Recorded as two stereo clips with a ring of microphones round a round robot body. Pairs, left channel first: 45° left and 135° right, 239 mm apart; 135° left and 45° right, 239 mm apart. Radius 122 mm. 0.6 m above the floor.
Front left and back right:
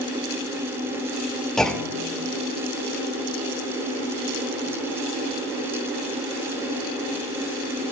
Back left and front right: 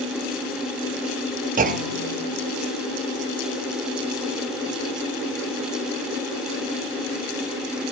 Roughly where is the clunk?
Ahead right.